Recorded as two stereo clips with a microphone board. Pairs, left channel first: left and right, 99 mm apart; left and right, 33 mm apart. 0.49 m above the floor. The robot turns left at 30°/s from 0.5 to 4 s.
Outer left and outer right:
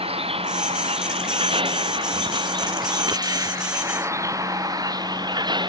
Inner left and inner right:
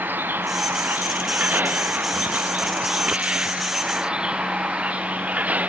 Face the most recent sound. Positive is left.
turn(degrees=-50)  # may be behind; listen again after turning